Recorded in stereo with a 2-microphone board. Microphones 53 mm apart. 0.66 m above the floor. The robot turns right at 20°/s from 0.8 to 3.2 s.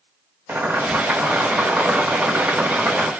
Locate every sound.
0.5 s boiling: 100° right, 1.2 m; by 3.1 s 55° right, 1.2 m